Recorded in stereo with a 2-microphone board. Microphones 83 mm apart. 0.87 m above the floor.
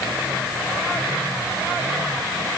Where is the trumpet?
No trumpet in this recording.